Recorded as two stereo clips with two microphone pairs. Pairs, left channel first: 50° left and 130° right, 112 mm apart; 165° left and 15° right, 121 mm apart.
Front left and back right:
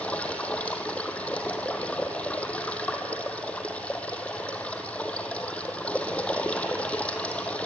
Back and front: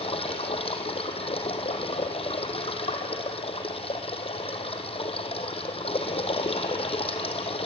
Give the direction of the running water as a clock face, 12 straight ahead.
8 o'clock.